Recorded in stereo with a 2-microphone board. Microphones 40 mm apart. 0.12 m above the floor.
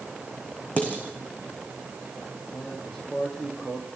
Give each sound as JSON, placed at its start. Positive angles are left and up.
{"t": 0.8, "sound": "dishes clattering", "side_deg": 35, "distance_m": 5.0}
{"t": 2.5, "sound": "a man speaking", "side_deg": 10, "distance_m": 5.5}